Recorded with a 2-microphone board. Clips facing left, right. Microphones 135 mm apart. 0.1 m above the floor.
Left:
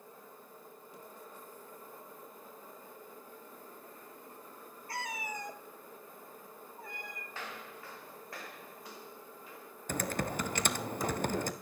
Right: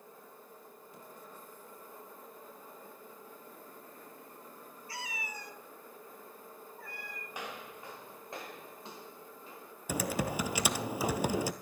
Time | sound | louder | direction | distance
4.9 | a cat meowing | left 4 dB | 55° left (ahead or behind) | 1.4 m
7.3 | footsteps | right 3 dB | 15° right (ahead or behind) | 3.5 m
9.9 | typing on a keyboard | right 2 dB | 10° right (ahead or behind) | 0.8 m